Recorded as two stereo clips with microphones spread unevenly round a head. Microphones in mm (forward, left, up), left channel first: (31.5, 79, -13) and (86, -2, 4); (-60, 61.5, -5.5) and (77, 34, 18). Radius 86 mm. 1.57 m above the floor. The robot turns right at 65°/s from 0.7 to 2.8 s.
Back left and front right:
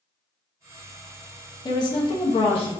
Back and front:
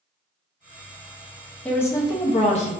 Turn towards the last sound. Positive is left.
turn(degrees=155)